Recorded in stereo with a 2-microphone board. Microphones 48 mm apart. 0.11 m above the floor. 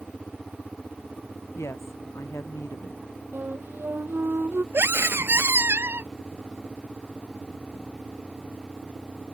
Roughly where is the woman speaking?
Left.